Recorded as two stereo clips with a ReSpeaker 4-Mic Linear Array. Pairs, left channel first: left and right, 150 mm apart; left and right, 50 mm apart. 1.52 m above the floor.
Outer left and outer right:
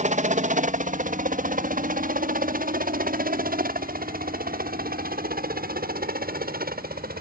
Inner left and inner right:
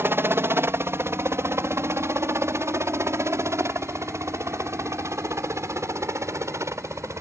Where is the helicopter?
55° right (ahead or behind); by 7.2 s 80° right.